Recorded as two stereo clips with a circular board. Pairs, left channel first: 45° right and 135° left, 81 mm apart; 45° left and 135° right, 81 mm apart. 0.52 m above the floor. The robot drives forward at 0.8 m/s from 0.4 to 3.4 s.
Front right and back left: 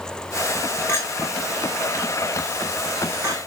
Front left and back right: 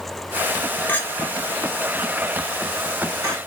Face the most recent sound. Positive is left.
turn(degrees=-175)